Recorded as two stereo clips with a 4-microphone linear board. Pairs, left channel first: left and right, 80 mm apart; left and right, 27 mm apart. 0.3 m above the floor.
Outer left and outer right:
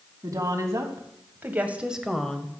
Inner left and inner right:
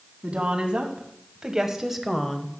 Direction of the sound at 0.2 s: 40° right (ahead or behind).